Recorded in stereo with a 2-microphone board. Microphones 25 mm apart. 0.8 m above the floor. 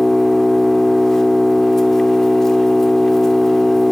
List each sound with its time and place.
0.0 s an engine running: 20° left (ahead or behind), 1.1 m